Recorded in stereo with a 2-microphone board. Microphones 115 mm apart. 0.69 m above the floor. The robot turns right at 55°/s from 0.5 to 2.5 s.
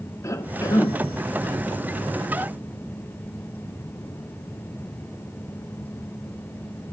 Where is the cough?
25° left (ahead or behind), 0.8 m; by 1.0 s 30° left (ahead or behind), 0.8 m.